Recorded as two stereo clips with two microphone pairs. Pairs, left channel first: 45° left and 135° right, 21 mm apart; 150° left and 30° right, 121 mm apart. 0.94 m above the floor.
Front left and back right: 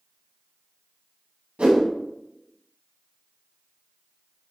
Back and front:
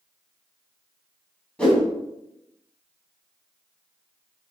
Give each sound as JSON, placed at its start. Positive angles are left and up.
{"t": 1.6, "sound": "a whoosh", "azimuth_deg": -125, "distance_m": 3.5}